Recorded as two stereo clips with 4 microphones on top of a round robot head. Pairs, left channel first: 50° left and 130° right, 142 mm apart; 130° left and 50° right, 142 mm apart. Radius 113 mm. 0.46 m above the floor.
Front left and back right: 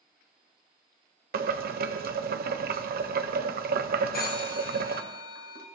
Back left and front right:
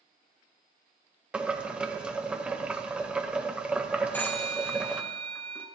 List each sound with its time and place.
1.3 s boiling: 130° right, 0.9 m
4.1 s a phone ringing: 55° left, 1.8 m